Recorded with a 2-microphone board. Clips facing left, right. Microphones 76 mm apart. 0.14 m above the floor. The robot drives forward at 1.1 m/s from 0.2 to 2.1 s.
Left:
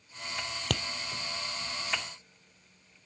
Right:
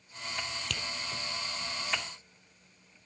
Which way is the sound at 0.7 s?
55° left (ahead or behind).